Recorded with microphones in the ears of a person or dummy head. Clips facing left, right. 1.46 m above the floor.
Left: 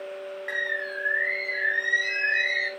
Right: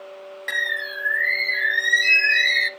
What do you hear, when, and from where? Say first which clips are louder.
0.5 s a bird: left 1 dB; 45° right (ahead or behind), 0.6 m